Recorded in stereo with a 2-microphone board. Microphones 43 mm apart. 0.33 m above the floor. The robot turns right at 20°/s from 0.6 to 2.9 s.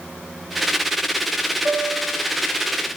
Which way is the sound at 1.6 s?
45° right (ahead or behind).